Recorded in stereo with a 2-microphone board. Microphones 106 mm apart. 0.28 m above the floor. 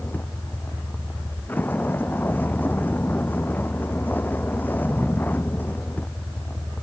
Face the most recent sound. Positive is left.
turn(degrees=20)  # may be behind; listen again after turning